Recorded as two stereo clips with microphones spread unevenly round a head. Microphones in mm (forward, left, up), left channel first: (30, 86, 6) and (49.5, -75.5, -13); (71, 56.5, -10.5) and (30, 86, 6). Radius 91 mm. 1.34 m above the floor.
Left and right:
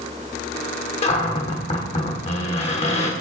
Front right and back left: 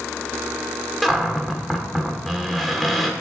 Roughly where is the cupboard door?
Left.